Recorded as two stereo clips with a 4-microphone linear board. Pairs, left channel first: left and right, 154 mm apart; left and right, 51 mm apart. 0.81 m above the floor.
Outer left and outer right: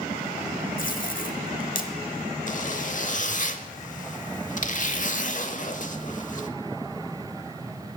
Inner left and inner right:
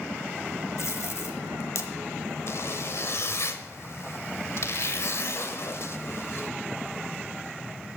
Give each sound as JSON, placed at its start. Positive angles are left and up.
{"t": 0.8, "sound": "tape being pulled", "side_deg": 65, "distance_m": 1.1}
{"t": 2.5, "sound": "a zipper", "side_deg": 55, "distance_m": 0.8}